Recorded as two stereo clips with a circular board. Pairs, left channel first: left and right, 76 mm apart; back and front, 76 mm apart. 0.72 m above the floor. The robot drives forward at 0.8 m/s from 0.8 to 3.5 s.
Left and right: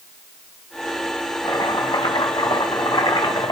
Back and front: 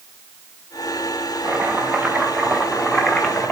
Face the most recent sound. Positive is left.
turn(degrees=115)